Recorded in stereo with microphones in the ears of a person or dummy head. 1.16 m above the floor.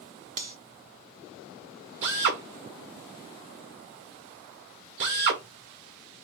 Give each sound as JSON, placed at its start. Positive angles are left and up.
{"t": 0.4, "sound": "cutlery clinking", "side_deg": -50, "distance_m": 0.9}
{"t": 2.0, "sound": "a drill", "side_deg": -65, "distance_m": 1.4}